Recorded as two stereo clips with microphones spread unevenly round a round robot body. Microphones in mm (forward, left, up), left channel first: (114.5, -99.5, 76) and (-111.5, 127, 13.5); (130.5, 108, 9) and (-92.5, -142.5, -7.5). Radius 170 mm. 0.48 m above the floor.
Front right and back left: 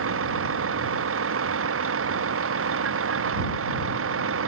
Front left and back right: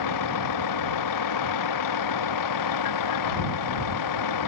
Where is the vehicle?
85° left.